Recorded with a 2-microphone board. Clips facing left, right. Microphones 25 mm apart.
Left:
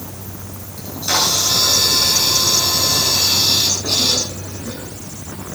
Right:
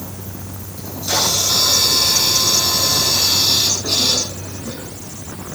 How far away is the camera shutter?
About 8.5 m.